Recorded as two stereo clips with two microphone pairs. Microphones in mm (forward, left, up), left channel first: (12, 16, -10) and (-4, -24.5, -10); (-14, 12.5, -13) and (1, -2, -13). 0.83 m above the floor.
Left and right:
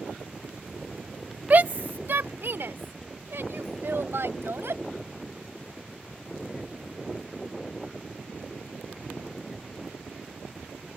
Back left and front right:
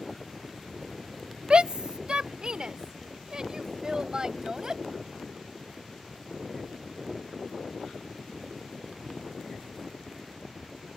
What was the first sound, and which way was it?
A shout, 75° right.